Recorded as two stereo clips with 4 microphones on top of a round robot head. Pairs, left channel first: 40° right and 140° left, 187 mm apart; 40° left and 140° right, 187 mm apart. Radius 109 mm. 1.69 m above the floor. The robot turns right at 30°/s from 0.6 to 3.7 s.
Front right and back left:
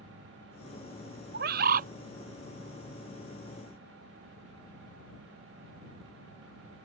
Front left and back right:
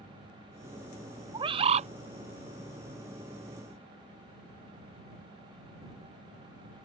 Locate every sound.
1.3 s a bird: 155° left; by 1.9 s 175° left